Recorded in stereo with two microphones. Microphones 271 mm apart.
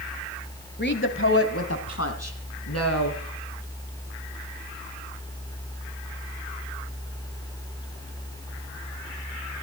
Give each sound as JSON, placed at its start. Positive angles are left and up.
{"t": 0.8, "sound": "a woman speaking", "side_deg": 40, "distance_m": 1.1}